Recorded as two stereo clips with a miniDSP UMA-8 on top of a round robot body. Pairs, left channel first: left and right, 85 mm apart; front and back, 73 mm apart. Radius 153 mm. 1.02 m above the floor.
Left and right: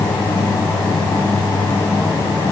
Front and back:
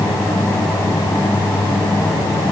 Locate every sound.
Only background noise.